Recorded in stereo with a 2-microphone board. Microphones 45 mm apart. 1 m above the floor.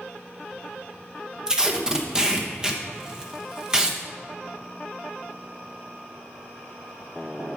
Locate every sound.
1.5 s tape being pulled: 15° right (ahead or behind), 1.1 m